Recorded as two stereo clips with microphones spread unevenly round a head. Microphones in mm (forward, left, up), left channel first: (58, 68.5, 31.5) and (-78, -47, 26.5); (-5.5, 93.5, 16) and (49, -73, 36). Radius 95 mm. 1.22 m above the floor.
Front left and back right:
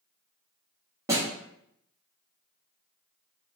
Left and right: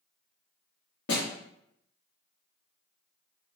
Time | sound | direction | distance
1.1 | a snare drum | 145° left | 1.0 m